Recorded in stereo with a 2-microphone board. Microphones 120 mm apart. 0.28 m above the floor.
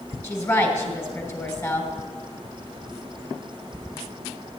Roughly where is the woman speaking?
Left.